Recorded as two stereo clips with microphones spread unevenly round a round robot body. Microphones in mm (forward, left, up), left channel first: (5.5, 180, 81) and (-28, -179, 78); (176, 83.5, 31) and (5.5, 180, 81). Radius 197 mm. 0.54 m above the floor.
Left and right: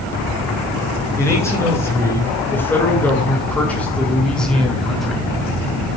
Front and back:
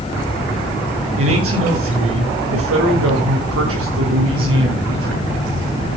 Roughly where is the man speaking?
Behind.